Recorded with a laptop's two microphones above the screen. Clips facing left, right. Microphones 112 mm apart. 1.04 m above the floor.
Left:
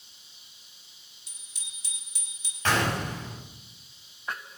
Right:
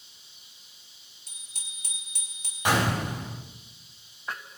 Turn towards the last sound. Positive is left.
turn(degrees=-15)  # may be behind; listen again after turning